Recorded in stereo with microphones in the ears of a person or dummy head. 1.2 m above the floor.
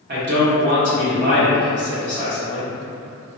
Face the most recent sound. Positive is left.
turn(degrees=-50)  # may be behind; listen again after turning